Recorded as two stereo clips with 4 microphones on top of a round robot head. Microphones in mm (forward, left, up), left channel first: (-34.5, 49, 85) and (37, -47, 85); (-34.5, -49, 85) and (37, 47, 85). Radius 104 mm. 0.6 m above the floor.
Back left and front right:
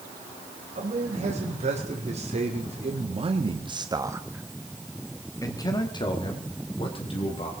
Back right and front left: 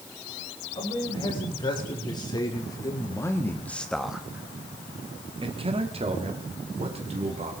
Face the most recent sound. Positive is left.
turn(degrees=90)